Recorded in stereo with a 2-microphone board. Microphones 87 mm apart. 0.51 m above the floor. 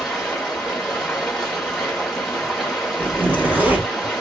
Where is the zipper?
15° right (ahead or behind), 0.8 m.